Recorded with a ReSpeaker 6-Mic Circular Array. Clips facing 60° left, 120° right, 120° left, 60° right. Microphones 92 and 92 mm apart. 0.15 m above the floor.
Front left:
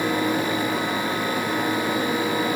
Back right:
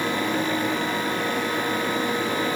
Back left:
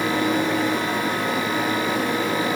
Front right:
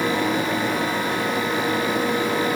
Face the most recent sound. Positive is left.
No sound to turn to.